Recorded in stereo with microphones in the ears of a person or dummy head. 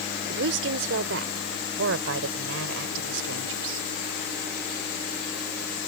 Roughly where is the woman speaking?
Right.